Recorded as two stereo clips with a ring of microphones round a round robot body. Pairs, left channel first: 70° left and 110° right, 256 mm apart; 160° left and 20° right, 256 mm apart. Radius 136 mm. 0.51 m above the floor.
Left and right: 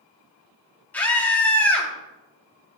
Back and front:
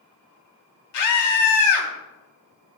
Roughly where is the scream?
Behind left.